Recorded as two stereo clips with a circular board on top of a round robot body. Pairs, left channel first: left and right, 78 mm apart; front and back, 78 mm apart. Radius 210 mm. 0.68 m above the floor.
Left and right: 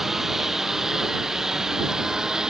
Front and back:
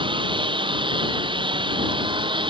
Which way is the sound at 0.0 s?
175° right.